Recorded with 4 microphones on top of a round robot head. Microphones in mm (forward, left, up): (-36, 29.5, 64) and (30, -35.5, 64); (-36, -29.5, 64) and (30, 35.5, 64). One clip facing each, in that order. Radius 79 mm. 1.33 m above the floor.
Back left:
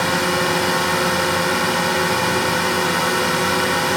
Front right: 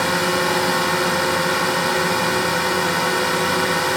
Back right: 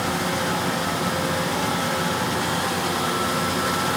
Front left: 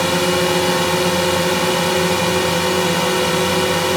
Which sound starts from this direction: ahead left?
A drone, at 0.0 s.